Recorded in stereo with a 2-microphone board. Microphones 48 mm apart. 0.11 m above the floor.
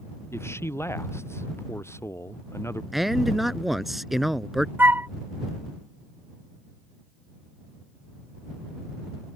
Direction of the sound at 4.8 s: 40° right (ahead or behind).